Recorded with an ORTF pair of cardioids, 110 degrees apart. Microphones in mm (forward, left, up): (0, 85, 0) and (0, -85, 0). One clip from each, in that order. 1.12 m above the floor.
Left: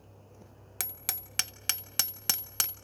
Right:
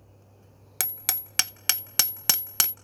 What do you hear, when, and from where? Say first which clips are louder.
0.8 s hammering: right 6 dB; 30° right, 0.7 m